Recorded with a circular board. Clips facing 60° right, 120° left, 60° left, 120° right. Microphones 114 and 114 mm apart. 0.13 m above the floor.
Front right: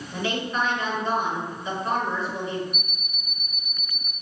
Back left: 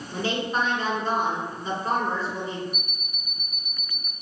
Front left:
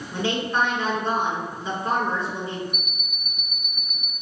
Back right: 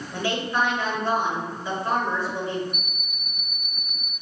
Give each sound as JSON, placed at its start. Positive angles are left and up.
{"t": 0.1, "sound": "a woman speaking", "azimuth_deg": 110, "distance_m": 1.7}
{"t": 2.7, "sound": "an alarm clock", "azimuth_deg": 135, "distance_m": 0.7}